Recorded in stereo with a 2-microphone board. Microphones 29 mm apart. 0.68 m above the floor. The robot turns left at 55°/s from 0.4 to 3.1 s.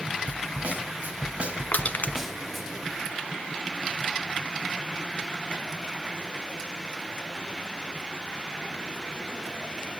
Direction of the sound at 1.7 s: 70° left (ahead or behind).